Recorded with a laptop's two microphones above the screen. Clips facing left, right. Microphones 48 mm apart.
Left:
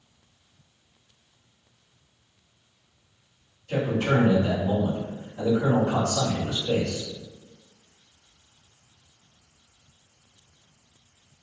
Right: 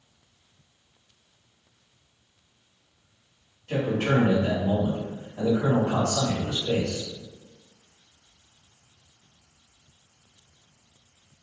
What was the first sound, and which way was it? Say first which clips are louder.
A man speaking: even; 55° right (ahead or behind).